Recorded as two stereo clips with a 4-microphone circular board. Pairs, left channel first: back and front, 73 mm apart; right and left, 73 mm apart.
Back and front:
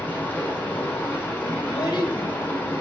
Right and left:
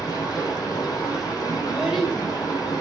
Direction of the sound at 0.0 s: 110° right.